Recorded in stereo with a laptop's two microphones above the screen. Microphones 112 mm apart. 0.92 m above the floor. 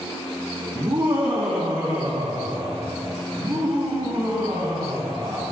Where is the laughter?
60° right (ahead or behind), 6 m; by 5.4 s 45° right (ahead or behind), 8.5 m.